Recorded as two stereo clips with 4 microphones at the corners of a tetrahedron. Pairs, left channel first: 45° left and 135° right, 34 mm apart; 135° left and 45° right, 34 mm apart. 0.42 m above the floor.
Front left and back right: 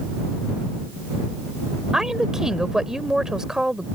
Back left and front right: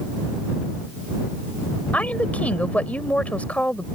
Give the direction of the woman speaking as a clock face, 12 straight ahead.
7 o'clock.